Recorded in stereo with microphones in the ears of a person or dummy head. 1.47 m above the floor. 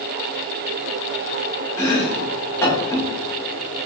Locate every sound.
1.8 s chopping: 15° left (ahead or behind), 1.3 m